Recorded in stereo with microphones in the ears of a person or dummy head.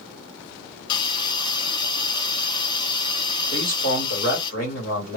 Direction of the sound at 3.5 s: 70° left (ahead or behind).